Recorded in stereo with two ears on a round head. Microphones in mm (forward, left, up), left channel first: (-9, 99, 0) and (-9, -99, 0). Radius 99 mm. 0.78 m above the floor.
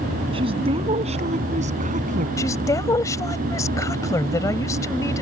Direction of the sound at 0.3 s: 25° right (ahead or behind).